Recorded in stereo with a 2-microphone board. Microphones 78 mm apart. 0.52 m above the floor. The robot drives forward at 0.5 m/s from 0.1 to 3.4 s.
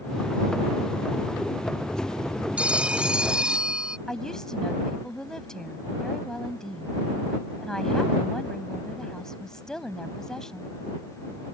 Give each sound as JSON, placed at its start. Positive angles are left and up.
{"t": 2.6, "sound": "a phone ringing", "side_deg": -15}
{"t": 4.1, "sound": "a woman speaking", "side_deg": 10}